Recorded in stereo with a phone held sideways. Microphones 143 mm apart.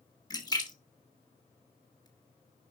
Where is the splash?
30° left (ahead or behind), 1.6 m.